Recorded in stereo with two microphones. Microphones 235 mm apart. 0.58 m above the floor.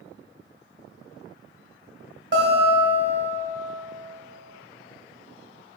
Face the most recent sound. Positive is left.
turn(degrees=-50)  # may be behind; listen again after turning